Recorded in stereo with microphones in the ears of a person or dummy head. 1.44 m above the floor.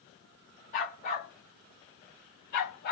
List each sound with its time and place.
0.7 s a dog barking: 45° left (ahead or behind), 1.5 m; by 2.9 s 60° left (ahead or behind), 2.5 m